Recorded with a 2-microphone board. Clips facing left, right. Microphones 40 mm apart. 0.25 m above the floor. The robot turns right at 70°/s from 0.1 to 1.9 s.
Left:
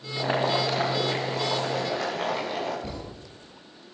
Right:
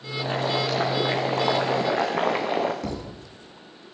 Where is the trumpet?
No trumpet in this recording.